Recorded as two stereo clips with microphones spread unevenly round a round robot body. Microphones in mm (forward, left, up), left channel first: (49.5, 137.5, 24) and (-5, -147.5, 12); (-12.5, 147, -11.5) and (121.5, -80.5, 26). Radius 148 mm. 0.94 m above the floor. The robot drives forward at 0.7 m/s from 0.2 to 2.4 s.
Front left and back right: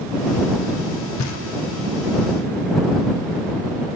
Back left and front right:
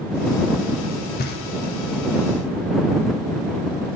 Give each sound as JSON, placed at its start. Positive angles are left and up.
{"t": 1.2, "sound": "knocking", "azimuth_deg": 85, "distance_m": 0.5}